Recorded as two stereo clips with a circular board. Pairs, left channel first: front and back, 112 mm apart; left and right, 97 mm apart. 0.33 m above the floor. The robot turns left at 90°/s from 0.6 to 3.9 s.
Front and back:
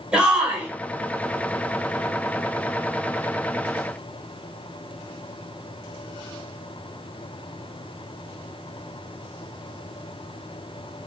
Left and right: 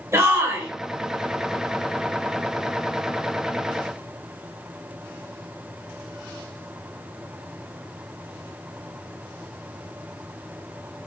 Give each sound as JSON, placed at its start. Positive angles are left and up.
{"t": 0.1, "sound": "a shout", "azimuth_deg": -110, "distance_m": 1.0}